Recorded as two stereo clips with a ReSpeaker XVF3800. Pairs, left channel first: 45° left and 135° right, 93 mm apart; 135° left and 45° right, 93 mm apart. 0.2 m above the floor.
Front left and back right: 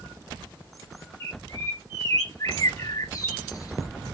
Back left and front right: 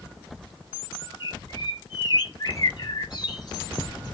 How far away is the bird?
About 0.9 m.